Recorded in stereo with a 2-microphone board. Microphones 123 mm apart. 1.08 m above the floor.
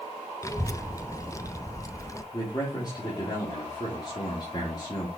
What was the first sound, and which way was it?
A child speaking, 25° left (ahead or behind).